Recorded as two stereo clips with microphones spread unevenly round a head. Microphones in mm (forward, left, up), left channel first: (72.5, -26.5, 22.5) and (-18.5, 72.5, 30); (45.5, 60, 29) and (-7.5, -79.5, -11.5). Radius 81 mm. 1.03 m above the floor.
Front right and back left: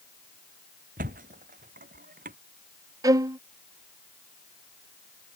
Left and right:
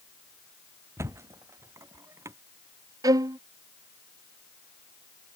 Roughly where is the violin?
Behind.